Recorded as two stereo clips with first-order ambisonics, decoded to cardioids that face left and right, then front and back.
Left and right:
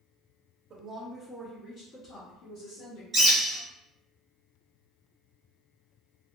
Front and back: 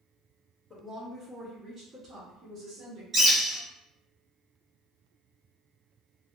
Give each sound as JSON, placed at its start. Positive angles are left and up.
{"t": 0.7, "sound": "a woman speaking", "azimuth_deg": -65, "distance_m": 0.6}
{"t": 3.1, "sound": "a bird", "azimuth_deg": -140, "distance_m": 1.0}